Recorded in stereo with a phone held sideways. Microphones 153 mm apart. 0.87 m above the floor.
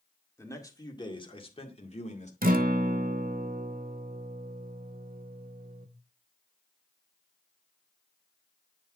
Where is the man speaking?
20° left (ahead or behind), 1.9 m; by 2.3 s 50° left (ahead or behind), 2 m.